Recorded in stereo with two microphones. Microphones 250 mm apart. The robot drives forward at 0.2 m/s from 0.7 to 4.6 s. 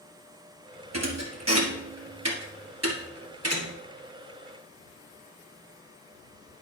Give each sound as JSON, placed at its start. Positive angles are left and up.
{"t": 0.9, "sound": "a thud", "side_deg": -80, "distance_m": 1.6}